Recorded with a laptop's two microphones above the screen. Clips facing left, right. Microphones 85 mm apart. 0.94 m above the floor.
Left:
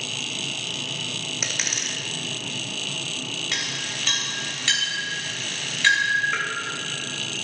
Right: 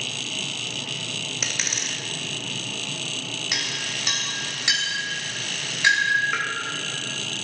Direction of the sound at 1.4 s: Centre (ahead or behind).